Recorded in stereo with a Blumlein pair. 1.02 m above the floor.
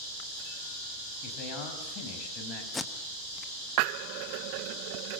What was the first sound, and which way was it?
A man speaking, 40° left.